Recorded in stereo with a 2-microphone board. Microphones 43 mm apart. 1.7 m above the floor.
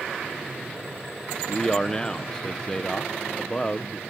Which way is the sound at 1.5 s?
20° left (ahead or behind).